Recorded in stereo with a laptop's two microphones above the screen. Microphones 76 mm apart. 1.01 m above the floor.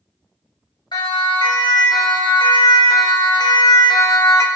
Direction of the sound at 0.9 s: 85° left.